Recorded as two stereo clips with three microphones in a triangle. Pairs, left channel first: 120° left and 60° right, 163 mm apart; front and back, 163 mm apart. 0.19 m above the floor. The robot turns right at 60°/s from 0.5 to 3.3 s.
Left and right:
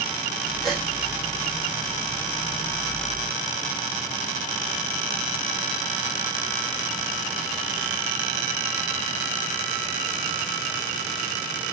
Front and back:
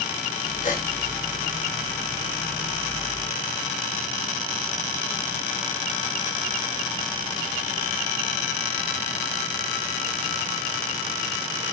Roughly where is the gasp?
Ahead left.